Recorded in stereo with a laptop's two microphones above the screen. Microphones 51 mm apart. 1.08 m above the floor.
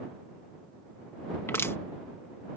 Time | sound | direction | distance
1.5 | crushing | 60° left (ahead or behind) | ?